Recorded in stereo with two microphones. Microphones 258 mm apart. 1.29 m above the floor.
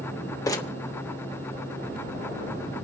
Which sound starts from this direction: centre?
Crumpling, at 0.5 s.